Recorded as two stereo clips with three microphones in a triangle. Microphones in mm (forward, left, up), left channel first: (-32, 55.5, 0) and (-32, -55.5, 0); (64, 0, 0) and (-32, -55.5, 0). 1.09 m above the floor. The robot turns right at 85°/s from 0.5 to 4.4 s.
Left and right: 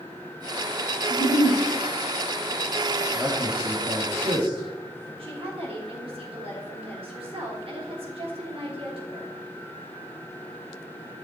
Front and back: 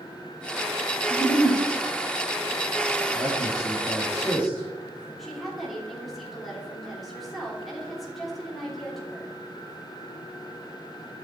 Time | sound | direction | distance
1.1 | a giggle | 75° left | 2.5 m
3.1 | a man speaking | 175° right | 2.5 m
5.2 | a woman speaking | 60° right | 3.5 m